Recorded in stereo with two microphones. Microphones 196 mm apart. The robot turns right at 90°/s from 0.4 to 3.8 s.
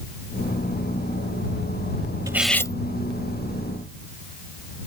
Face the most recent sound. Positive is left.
turn(degrees=120)